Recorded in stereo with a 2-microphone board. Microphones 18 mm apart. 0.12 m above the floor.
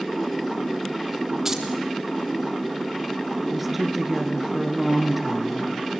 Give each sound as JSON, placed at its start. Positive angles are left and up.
{"t": 1.4, "sound": "keys jangling", "side_deg": -25, "distance_m": 3.5}
{"t": 3.5, "sound": "a woman speaking", "side_deg": -10, "distance_m": 1.7}